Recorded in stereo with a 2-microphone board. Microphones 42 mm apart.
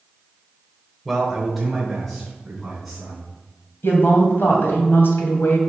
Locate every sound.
1.1 s a man speaking: 5° left (ahead or behind), 1.3 m; by 3.2 s centre (ahead or behind), 4 m
3.8 s a woman speaking: 70° left (ahead or behind), 2 m